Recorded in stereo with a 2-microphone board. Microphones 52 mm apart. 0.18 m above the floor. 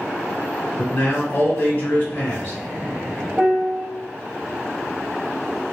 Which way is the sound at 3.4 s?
25° right (ahead or behind).